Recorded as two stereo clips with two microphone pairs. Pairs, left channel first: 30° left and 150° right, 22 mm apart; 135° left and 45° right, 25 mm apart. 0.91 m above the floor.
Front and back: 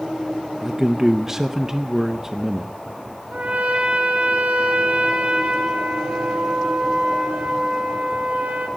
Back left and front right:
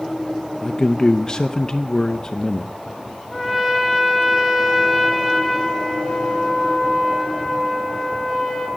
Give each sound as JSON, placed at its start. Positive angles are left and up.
{"t": 0.6, "sound": "a man speaking", "azimuth_deg": 150, "distance_m": 0.6}
{"t": 3.3, "sound": "a trumpet", "azimuth_deg": -135, "distance_m": 3.0}